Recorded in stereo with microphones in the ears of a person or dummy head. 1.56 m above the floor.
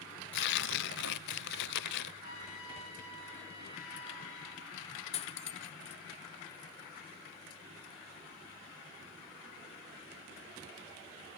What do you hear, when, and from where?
0.3 s tearing paper: 60° left (ahead or behind), 0.6 m
2.2 s a trumpet: 75° left (ahead or behind), 8 m
5.1 s cutlery clinking: 35° left (ahead or behind), 1.0 m